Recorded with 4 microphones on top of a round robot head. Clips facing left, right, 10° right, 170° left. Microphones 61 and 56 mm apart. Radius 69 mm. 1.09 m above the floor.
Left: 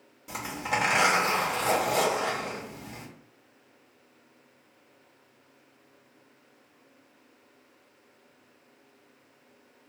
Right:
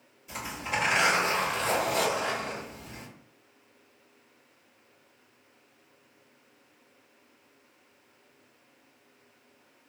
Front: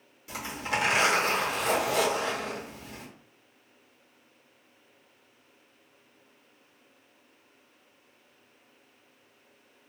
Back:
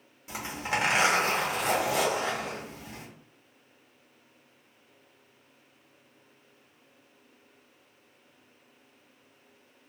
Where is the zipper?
105° left, 1.3 m.